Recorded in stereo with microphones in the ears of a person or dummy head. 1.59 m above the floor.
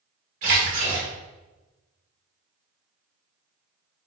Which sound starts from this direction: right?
A splash, at 0.4 s.